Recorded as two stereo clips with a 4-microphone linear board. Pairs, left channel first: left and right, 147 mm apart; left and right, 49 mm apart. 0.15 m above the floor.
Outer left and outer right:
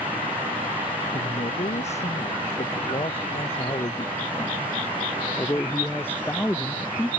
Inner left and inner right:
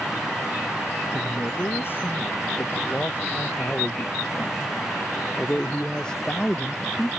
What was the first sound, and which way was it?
A man speaking, 55° left (ahead or behind).